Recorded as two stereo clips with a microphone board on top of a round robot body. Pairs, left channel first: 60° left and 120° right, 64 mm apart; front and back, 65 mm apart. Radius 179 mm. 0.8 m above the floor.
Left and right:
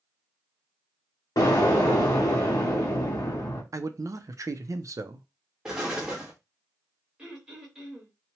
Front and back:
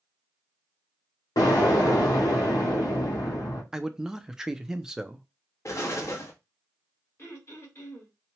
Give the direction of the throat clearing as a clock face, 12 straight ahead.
1 o'clock.